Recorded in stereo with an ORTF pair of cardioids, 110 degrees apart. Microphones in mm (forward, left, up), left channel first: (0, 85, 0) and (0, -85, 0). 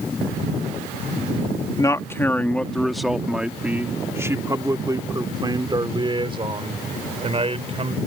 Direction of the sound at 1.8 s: 20° left.